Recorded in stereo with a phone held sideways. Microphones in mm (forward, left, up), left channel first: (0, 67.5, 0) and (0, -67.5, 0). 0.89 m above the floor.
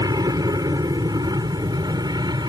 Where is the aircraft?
30° right (ahead or behind).